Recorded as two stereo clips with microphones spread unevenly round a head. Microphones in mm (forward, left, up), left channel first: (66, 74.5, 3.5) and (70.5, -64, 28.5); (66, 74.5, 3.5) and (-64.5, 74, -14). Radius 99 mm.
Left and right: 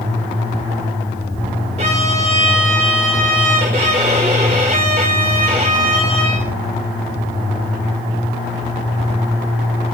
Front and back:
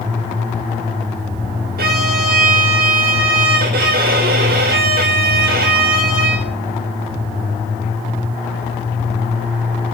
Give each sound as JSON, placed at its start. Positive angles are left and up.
{"t": 1.8, "sound": "a violin", "azimuth_deg": -145, "distance_m": 1.9}